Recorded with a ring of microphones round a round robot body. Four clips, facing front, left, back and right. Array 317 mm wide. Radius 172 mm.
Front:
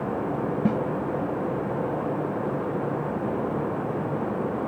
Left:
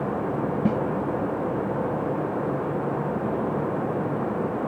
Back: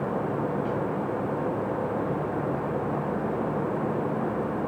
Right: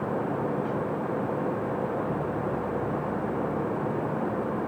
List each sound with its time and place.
0.7 s a snare drum: 45° left